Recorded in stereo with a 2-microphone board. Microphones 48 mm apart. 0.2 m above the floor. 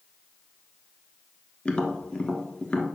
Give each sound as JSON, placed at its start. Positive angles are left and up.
{"t": 1.6, "sound": "tapping", "side_deg": 25, "distance_m": 1.4}